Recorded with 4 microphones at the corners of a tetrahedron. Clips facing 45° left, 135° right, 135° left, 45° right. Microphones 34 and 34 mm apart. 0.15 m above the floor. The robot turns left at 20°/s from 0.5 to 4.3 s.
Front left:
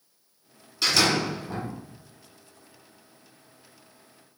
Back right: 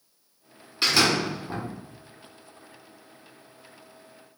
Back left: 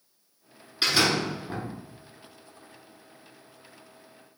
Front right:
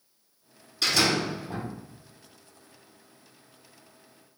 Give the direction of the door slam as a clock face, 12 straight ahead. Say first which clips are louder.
Back right 1 dB, back left 1 dB; 6 o'clock.